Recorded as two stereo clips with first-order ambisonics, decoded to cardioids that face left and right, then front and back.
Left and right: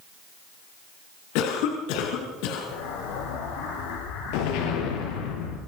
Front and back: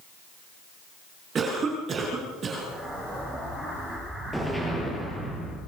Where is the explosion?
95° left, 10 m.